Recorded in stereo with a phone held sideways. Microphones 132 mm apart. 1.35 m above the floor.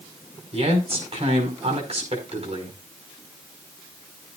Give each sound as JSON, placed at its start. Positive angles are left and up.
{"t": 0.5, "sound": "a man speaking", "side_deg": -55, "distance_m": 5.0}